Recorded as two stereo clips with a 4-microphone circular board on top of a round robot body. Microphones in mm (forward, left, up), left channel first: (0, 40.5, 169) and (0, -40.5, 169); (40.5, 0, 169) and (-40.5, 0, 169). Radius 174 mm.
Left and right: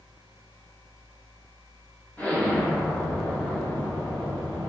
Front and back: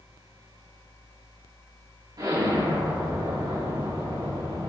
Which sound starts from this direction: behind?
An explosion, at 2.2 s.